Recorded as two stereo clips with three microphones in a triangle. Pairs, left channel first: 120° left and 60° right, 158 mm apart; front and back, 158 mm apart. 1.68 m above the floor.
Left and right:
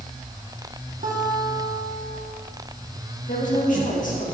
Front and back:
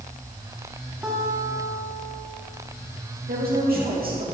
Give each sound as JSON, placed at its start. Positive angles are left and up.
{"t": 1.0, "sound": "a guitar", "azimuth_deg": -95, "distance_m": 2.0}
{"t": 3.3, "sound": "a woman speaking", "azimuth_deg": 160, "distance_m": 2.5}